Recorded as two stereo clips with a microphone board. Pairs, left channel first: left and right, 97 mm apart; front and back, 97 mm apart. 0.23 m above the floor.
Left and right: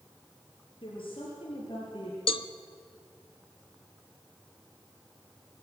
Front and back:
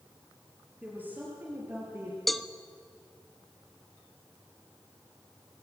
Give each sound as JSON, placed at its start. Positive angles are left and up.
{"t": 0.8, "sound": "a woman speaking", "azimuth_deg": 110, "distance_m": 4.5}
{"t": 2.3, "sound": "a cowbell", "azimuth_deg": 90, "distance_m": 0.6}